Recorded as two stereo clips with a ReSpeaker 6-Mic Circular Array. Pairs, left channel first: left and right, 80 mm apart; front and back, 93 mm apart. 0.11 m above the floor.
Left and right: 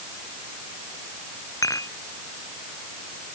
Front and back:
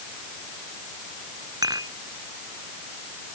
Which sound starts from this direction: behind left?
Dishes clattering, at 1.6 s.